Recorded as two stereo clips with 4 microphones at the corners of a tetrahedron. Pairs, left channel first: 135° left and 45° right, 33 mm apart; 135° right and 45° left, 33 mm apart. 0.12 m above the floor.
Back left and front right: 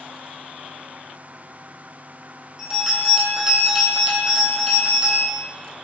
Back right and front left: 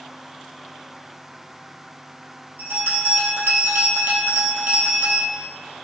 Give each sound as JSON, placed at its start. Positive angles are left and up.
{"t": 2.6, "sound": "a bell", "azimuth_deg": 35, "distance_m": 1.1}